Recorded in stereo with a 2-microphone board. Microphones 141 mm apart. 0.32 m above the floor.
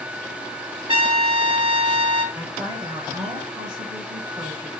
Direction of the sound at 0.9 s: 45° right (ahead or behind).